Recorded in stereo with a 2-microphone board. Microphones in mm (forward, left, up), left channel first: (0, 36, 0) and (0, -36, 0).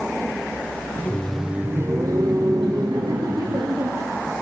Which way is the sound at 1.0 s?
30° left (ahead or behind).